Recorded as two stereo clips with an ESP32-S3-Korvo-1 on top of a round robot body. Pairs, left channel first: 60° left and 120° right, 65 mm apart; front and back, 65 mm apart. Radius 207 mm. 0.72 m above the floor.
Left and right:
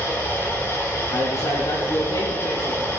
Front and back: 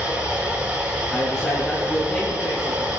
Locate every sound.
0.0 s running water: 115° left, 9 m
1.1 s a man speaking: 80° left, 6.5 m